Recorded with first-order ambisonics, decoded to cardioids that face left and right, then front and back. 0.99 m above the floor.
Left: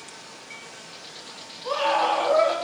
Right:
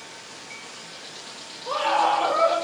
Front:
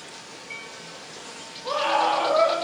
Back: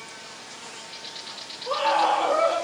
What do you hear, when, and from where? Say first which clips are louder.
1.6 s a scream: right 1 dB, back 1 dB; 45° left, 1.4 m